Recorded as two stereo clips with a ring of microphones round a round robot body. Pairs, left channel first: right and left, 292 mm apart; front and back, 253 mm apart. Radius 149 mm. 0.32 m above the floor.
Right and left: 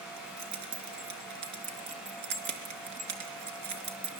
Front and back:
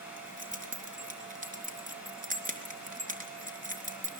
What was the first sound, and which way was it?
Keys jangling, 120° left.